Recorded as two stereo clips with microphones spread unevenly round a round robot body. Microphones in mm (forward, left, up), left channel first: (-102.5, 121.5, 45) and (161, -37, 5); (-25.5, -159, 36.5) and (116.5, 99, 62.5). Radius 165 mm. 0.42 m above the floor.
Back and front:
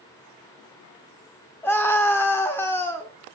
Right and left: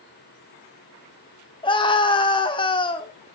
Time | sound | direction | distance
1.6 | a scream | 120° right | 0.7 m